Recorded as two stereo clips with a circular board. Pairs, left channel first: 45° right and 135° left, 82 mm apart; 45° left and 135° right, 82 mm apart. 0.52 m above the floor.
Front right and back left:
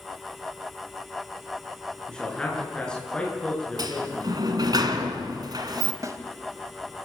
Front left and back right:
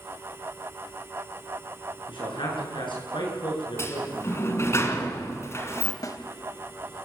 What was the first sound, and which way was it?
A man speaking, 35° left.